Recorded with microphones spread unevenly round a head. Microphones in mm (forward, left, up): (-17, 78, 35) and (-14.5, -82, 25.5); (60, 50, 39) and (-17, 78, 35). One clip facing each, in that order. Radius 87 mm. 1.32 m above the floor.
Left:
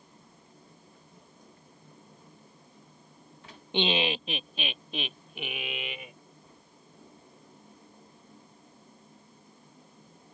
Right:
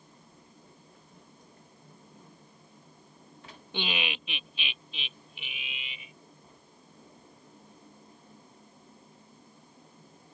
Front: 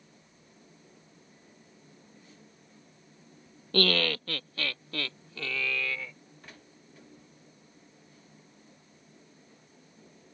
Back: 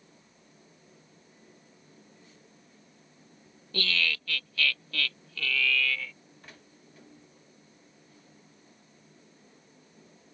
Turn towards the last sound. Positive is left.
turn(degrees=50)